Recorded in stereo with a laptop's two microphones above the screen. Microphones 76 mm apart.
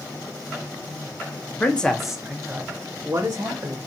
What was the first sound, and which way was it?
A man speaking, 20° left (ahead or behind).